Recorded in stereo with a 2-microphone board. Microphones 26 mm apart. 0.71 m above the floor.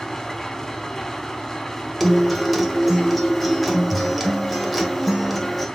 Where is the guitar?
5° right (ahead or behind), 1.4 m.